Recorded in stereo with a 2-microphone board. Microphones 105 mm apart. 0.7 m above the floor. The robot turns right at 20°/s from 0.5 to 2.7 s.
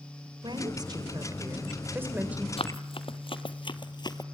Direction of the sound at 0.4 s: 50° right.